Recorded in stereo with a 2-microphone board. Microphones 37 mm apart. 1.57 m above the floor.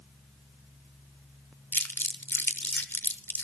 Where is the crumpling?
80° left, 0.8 m.